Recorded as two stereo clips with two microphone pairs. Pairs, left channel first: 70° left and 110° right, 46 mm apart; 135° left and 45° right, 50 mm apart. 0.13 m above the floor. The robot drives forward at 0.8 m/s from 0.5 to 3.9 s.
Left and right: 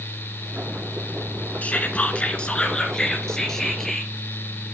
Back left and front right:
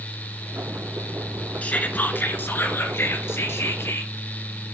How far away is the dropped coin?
No dropped coin in this recording.